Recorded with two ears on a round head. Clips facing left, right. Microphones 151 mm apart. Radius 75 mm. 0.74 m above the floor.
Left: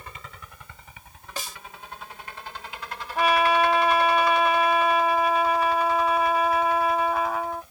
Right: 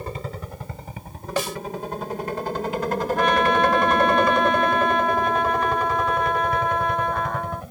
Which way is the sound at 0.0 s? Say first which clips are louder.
Right 12 dB; 30° right (ahead or behind).